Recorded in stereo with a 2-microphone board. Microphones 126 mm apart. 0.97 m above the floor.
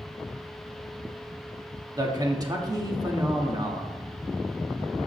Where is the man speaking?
30° right (ahead or behind), 1.5 m.